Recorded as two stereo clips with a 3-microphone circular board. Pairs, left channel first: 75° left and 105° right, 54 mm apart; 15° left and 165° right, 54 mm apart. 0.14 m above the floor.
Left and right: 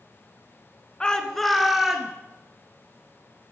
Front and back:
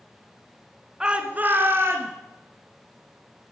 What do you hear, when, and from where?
1.0 s a shout: 135° left, 1.4 m; by 2.1 s 175° left, 2.5 m